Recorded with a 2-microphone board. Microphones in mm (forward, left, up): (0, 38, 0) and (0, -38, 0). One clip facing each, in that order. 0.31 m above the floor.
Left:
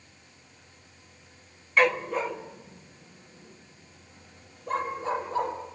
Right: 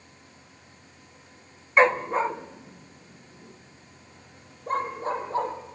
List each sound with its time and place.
1.8 s a dog barking: 30° right (ahead or behind), 0.7 m; by 5.5 s 45° right (ahead or behind), 5.5 m